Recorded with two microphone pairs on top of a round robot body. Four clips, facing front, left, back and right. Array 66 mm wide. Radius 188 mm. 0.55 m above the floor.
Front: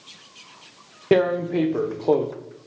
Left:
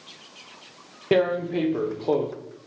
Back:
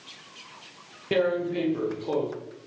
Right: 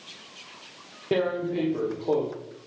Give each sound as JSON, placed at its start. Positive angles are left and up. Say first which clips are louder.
{"t": 1.1, "sound": "tearing paper", "louder": "left 4 dB, front 5 dB", "azimuth_deg": 15, "distance_m": 1.0}